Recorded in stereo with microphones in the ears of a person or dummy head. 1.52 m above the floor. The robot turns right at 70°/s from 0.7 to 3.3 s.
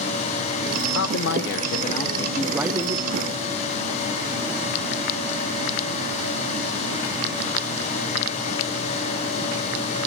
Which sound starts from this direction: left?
A man speaking, at 0.9 s.